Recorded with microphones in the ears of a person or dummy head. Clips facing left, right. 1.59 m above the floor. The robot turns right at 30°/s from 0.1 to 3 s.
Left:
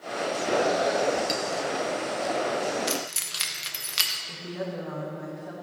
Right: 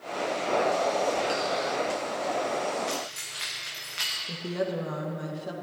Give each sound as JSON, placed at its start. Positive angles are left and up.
{"t": 1.3, "sound": "a clink", "side_deg": 30, "distance_m": 0.9}
{"t": 2.9, "sound": "keys jangling", "side_deg": 55, "distance_m": 1.0}
{"t": 4.3, "sound": "a woman speaking", "side_deg": -50, "distance_m": 1.6}